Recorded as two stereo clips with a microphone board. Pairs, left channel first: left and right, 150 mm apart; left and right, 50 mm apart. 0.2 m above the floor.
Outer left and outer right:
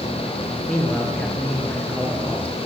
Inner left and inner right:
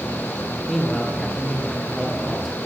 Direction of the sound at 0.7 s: 10° left (ahead or behind).